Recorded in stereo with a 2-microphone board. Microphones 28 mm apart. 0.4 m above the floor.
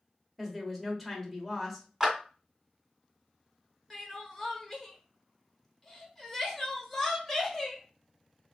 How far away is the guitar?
I don't hear a guitar.